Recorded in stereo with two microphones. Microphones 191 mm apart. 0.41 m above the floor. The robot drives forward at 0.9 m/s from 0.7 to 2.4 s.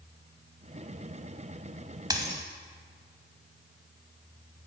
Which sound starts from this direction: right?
A dropped coin, at 2.1 s.